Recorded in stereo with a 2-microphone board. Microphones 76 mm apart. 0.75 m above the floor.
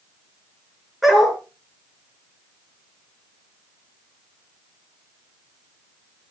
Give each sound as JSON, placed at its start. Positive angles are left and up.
{"t": 1.0, "sound": "a dog barking", "side_deg": -5, "distance_m": 5.0}